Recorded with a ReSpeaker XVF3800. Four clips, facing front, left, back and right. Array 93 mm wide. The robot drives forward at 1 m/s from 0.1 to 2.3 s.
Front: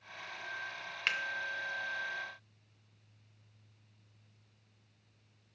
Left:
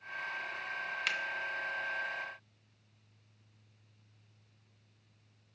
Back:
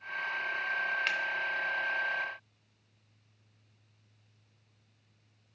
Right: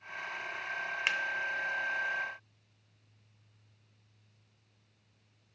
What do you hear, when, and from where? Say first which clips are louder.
1.1 s a finger snap: right 4 dB, back 3 dB; 75° right, 0.8 m; by 1.2 s 95° right, 0.8 m